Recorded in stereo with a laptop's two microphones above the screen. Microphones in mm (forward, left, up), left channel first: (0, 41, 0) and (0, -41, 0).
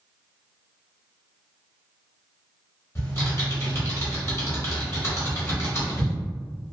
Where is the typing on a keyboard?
35° left (ahead or behind), 0.9 m.